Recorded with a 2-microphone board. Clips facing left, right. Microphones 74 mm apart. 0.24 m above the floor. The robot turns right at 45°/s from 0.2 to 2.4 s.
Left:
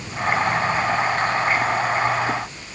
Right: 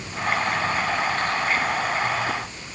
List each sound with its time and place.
Only background noise.